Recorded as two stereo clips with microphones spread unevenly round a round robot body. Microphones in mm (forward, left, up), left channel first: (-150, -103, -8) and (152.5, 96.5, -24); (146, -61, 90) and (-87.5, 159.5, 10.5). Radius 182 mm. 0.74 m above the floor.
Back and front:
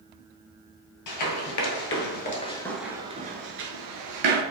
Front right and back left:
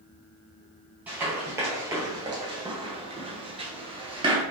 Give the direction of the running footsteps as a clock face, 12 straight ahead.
4 o'clock.